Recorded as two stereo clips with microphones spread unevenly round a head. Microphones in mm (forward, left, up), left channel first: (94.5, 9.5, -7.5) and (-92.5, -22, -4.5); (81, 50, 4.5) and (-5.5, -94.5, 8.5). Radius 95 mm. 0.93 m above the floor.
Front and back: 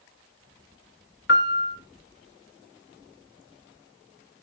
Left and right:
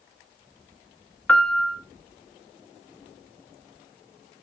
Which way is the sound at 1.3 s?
25° right.